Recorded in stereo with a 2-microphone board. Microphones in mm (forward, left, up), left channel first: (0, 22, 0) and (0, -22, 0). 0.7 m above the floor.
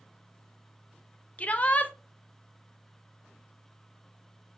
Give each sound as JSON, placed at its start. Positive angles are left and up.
{"t": 1.4, "sound": "a shout", "side_deg": 35, "distance_m": 0.5}